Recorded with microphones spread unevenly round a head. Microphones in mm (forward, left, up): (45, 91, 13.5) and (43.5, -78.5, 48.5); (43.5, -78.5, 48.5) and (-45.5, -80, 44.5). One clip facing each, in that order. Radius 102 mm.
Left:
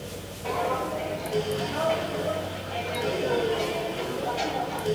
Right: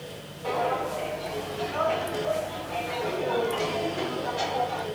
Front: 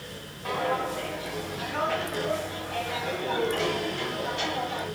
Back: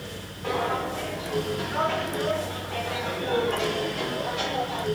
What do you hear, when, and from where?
0.4 s footsteps: 175° left, 4.5 m; by 4.9 s 155° left, 8.5 m